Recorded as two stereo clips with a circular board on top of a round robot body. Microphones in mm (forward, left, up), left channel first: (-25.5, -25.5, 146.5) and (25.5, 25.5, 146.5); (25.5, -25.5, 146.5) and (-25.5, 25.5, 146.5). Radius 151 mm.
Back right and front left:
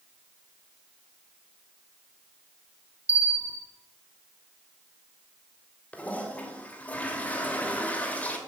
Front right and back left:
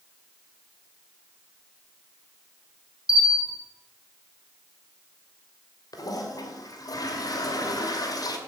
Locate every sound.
3.1 s a bell: 20° right, 2.5 m
5.9 s a toilet flushing: 65° right, 2.5 m